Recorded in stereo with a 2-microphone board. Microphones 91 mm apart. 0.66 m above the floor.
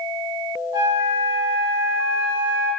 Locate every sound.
0.7 s a flute: 45° right (ahead or behind), 1.5 m